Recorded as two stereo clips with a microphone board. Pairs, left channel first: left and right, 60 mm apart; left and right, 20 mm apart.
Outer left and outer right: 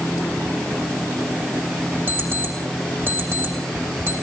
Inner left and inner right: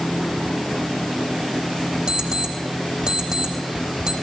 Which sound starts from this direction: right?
An alarm clock, at 2.1 s.